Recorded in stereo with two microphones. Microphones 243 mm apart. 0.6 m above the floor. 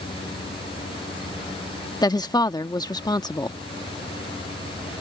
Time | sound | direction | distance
2.0 | a woman speaking | 15° left (ahead or behind) | ?